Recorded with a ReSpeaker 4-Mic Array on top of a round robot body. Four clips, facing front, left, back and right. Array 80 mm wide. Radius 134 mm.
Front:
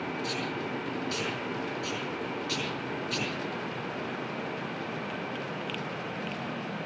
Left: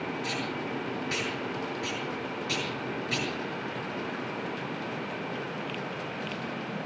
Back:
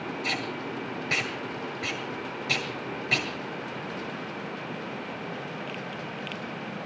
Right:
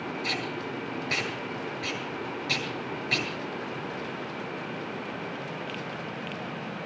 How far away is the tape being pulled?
About 9 m.